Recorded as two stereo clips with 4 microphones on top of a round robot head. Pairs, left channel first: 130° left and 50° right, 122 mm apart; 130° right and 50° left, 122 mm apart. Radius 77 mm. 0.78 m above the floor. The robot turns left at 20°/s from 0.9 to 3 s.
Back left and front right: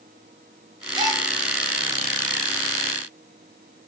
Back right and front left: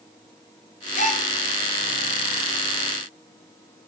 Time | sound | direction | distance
0.9 | a gasp | 105° right | 1.8 m